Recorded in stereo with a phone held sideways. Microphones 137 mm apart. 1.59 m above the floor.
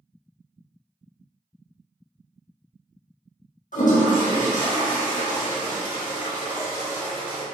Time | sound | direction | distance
3.7 | a toilet flushing | 75° left (ahead or behind) | 0.8 m